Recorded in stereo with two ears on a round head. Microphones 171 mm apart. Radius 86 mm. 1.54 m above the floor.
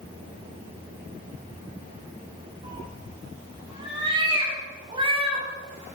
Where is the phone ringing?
No phone ringing in this recording.